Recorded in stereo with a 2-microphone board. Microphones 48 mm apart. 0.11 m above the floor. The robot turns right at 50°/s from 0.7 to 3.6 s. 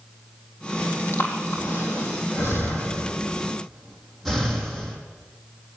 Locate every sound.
1.1 s breathing: 50° left (ahead or behind), 4 m; by 5.0 s 5° left (ahead or behind), 4 m